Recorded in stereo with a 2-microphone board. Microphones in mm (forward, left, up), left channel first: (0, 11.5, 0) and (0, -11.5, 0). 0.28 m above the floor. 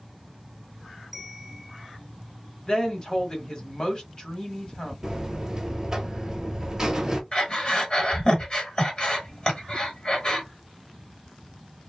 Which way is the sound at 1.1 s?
5° right (ahead or behind).